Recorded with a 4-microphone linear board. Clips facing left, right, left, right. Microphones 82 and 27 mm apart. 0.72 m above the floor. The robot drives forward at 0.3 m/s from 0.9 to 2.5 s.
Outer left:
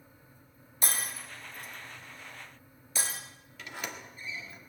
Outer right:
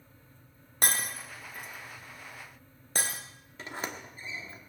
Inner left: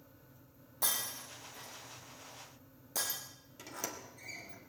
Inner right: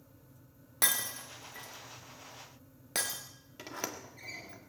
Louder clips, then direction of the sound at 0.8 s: Outer right 4 dB, inner right 5 dB; 70° right (ahead or behind).